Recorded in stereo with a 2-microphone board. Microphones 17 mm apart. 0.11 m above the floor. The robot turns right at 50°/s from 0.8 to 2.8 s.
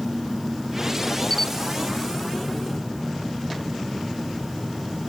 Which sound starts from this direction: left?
A camera shutter, at 1.3 s.